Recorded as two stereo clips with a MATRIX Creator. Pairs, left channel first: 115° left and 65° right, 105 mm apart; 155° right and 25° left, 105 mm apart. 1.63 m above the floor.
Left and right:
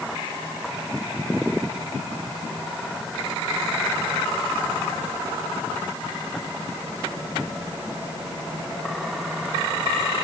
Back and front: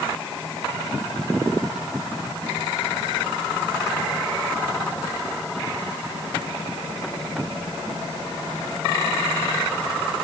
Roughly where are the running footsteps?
No running footsteps in this recording.